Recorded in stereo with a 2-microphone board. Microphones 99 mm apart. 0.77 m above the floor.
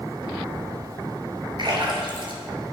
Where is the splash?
50° right (ahead or behind), 2.5 m.